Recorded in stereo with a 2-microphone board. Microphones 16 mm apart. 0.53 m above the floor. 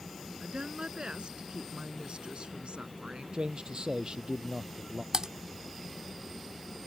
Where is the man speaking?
55° right (ahead or behind).